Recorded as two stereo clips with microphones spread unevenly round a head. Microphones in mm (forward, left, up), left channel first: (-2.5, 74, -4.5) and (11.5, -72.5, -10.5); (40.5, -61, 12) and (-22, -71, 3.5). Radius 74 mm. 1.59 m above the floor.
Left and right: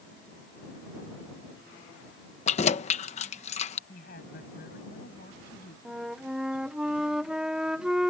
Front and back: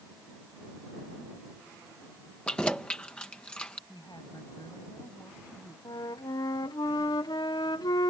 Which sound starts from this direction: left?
Keys jangling, at 2.5 s.